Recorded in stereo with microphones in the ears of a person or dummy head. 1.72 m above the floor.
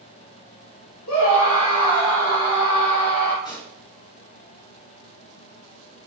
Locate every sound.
1.1 s a scream: 80° left, 2.0 m; by 3.4 s 60° left (ahead or behind), 0.9 m
3.5 s a pop: 15° left (ahead or behind), 0.6 m